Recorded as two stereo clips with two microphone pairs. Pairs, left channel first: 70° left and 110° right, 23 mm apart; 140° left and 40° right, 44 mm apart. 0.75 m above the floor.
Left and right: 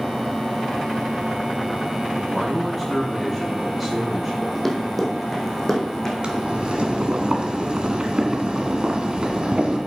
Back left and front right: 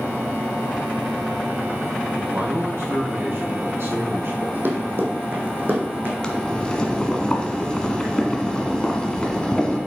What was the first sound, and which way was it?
A man speaking, 25° right.